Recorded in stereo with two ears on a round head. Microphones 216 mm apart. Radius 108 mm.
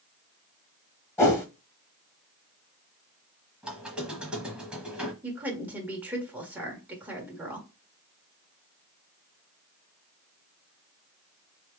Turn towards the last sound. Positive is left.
turn(degrees=-5)  # may be behind; listen again after turning